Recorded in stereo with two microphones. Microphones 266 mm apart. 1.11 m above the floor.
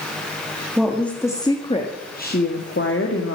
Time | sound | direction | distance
0.8 | a woman speaking | centre (ahead or behind) | 1.9 m